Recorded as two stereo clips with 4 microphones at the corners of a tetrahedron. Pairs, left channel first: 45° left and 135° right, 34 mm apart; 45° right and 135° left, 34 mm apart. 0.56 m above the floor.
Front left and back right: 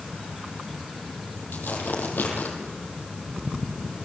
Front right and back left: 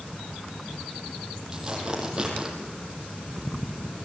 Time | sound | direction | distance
1.5 | tearing paper | 60° left | 5 m